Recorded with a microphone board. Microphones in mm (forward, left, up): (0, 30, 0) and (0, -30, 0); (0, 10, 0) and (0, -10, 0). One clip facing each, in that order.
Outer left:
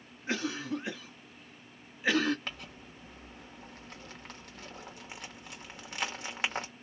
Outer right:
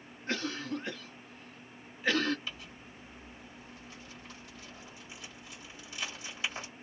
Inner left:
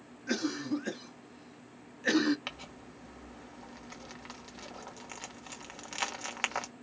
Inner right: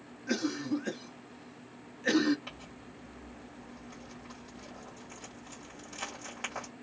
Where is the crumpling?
60° left (ahead or behind), 1.1 m.